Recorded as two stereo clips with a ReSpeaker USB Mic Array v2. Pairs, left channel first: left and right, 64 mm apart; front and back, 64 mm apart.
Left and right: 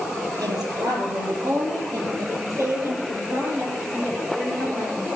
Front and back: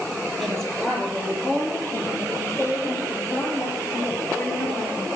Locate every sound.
0.4 s a woman speaking: 85° right, 4.5 m; by 5.1 s 15° right, 7.5 m